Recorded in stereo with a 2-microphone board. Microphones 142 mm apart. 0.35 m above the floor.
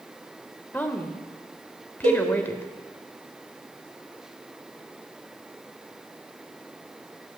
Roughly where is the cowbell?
Right.